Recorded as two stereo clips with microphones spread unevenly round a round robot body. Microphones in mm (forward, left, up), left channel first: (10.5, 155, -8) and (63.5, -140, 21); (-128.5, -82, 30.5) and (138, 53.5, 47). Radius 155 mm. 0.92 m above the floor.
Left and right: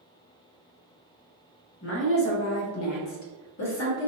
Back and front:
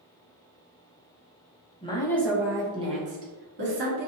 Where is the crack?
I don't hear a crack.